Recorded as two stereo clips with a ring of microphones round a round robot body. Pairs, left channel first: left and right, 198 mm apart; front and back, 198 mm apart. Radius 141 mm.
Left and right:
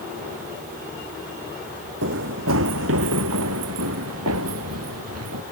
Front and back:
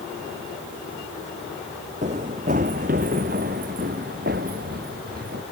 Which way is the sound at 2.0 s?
115° right.